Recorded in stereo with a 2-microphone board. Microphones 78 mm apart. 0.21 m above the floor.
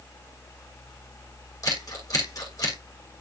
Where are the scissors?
45° left (ahead or behind), 9 m.